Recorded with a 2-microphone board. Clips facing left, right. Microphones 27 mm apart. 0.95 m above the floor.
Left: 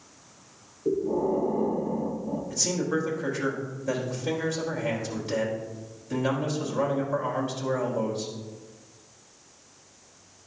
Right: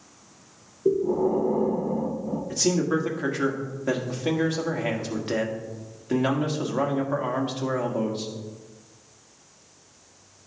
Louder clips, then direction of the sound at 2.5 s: Right 5 dB; 70° right (ahead or behind).